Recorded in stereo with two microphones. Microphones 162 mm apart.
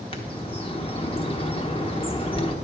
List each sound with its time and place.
0.1 s a bird: 35° left (ahead or behind), 0.9 m